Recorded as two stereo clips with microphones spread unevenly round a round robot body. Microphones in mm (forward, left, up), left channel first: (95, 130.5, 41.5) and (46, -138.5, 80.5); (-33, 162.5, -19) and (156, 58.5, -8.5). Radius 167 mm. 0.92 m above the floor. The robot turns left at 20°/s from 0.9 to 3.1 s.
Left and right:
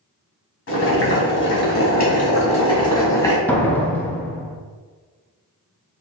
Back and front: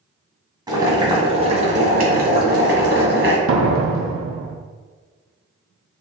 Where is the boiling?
40° left, 1.8 m; by 3.4 s straight ahead, 1.8 m.